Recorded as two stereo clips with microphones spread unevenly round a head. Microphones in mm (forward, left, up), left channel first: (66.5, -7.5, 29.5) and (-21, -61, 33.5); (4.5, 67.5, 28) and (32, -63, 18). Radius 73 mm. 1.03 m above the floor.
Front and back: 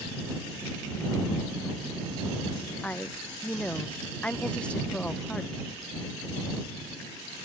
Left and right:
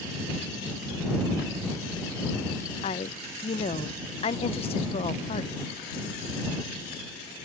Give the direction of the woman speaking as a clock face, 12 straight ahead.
9 o'clock.